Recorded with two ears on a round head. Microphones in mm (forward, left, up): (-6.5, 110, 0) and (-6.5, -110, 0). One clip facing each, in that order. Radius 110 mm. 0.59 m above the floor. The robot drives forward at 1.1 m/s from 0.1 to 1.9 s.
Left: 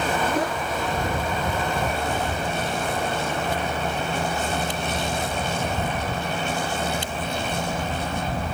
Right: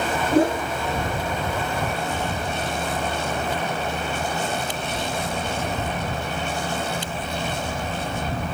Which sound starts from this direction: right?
A whoosh, at 0.3 s.